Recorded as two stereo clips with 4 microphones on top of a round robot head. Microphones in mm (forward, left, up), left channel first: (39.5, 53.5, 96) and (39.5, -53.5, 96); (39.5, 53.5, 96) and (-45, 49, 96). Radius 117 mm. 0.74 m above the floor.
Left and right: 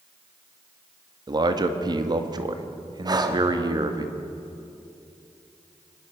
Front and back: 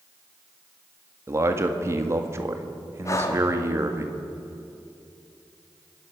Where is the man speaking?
130° right, 1.8 m.